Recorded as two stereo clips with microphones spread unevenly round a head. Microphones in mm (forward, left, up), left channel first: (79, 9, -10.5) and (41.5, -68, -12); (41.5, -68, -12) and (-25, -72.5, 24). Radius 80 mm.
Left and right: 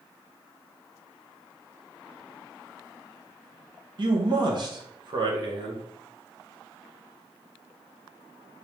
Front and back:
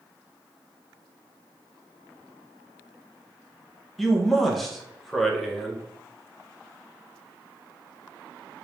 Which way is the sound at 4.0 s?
85° right.